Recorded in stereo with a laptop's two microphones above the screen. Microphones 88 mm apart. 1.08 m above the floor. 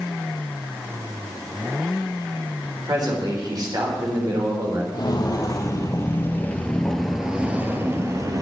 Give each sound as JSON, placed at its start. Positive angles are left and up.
{"t": 2.9, "sound": "a man speaking", "side_deg": -45, "distance_m": 4.0}
{"t": 4.9, "sound": "footsteps", "side_deg": 50, "distance_m": 2.0}